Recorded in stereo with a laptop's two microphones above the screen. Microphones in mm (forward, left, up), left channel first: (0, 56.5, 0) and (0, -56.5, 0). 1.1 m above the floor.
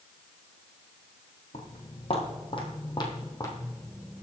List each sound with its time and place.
1.5 s footsteps: 70° left (ahead or behind), 3 m; by 4.2 s 15° left (ahead or behind), 3.5 m